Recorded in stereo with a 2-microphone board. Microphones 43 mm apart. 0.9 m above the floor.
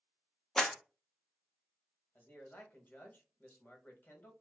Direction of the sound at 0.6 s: 15° left (ahead or behind).